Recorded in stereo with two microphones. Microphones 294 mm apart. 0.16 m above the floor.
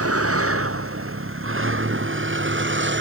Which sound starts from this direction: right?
A vehicle, at 0.0 s.